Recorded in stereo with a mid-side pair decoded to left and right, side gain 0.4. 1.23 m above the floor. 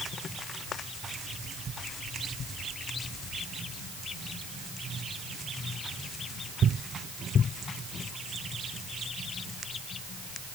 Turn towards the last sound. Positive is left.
No sound to turn to.